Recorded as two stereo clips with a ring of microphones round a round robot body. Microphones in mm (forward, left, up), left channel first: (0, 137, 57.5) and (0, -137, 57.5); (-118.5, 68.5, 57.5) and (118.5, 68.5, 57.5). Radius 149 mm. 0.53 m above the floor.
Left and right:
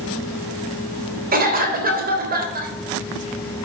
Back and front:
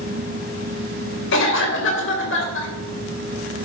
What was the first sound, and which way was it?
A cough, 145° right.